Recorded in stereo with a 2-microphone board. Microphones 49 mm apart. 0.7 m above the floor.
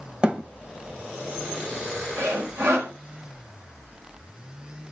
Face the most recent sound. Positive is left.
turn(degrees=-75)  # may be behind; listen again after turning